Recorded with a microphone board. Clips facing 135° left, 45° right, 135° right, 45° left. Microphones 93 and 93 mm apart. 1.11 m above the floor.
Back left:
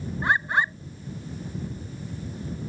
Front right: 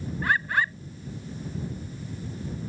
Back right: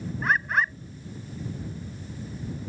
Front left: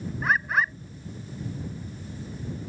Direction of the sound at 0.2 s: 130° left.